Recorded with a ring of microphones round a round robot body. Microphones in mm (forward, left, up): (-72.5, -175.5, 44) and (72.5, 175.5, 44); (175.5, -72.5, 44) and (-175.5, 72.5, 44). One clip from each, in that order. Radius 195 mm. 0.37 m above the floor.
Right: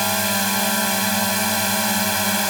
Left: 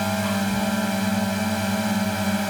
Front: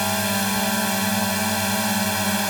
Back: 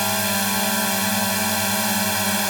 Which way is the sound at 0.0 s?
130° right.